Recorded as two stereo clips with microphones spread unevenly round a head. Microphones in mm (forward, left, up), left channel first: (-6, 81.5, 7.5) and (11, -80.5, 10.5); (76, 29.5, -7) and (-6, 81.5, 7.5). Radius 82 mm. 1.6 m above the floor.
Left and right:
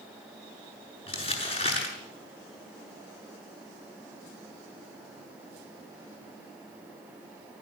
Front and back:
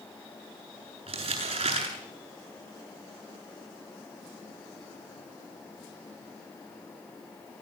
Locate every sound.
1.1 s crumpling: 150° left, 7.5 m